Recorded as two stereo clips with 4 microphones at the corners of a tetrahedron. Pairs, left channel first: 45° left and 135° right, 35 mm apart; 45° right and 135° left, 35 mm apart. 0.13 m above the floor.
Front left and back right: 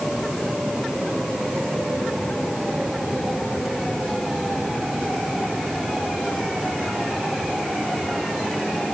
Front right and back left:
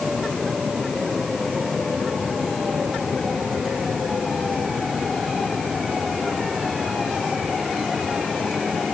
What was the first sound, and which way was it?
Only background noise.